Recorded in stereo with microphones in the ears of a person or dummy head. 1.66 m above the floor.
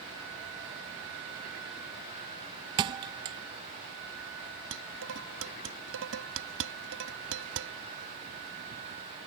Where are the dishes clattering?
75° right (ahead or behind).